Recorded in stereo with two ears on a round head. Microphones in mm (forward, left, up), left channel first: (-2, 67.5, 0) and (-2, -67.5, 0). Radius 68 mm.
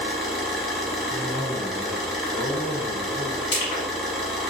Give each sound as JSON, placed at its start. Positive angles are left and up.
{"t": 0.0, "sound": "an engine running", "side_deg": 0, "distance_m": 0.9}
{"t": 1.1, "sound": "a cough", "side_deg": 80, "distance_m": 1.3}
{"t": 3.5, "sound": "crushing", "side_deg": 40, "distance_m": 1.5}